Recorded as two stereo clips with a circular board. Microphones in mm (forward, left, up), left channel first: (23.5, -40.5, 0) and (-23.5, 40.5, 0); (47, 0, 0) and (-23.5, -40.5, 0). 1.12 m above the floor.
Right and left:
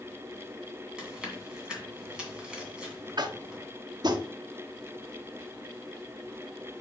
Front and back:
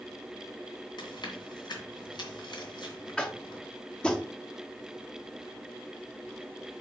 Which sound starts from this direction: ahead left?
Chewing, at 1.0 s.